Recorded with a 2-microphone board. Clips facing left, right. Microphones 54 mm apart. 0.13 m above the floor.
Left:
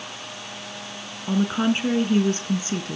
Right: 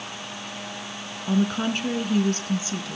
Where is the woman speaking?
10° left (ahead or behind), 1.2 m; by 3.0 s 40° left (ahead or behind), 1.4 m.